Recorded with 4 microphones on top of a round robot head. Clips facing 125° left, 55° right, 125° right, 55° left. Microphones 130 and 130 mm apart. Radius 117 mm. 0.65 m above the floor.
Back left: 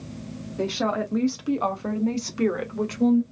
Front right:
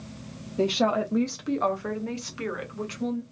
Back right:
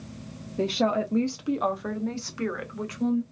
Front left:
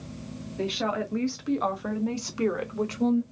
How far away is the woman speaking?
About 0.8 m.